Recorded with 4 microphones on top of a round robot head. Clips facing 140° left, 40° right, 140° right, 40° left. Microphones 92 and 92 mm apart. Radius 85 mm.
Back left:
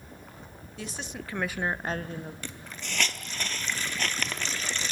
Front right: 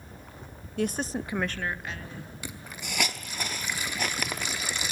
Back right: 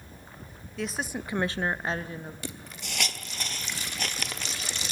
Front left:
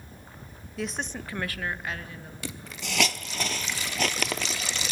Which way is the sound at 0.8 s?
45° right.